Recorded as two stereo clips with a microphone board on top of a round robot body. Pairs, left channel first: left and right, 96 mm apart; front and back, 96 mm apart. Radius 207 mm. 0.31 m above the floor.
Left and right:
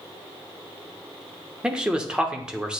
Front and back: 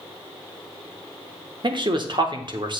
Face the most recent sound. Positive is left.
turn(degrees=-170)